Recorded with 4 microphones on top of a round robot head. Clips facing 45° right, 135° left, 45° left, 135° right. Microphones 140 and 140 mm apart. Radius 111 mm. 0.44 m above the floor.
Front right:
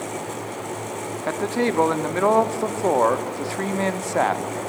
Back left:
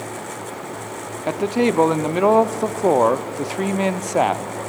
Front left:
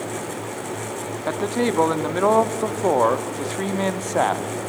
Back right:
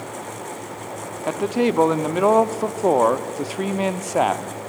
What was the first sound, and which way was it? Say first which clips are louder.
A man speaking: back left 4 dB, back right 2 dB; 165° left.